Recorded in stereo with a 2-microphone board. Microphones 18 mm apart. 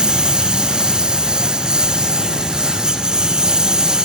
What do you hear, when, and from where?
0.0 s a lawn mower: 50° right (ahead or behind); by 4.0 s 45° right (ahead or behind)